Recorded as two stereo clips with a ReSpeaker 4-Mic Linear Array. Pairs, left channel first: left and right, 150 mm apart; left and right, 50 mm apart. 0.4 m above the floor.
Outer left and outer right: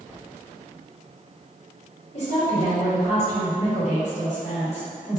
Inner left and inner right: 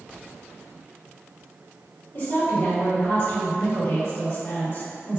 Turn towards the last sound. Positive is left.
turn(degrees=50)  # may be behind; listen again after turning